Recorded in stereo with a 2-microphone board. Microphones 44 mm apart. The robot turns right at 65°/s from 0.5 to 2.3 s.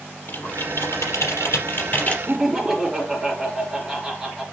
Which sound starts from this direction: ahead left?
Typing on a keyboard, at 0.3 s.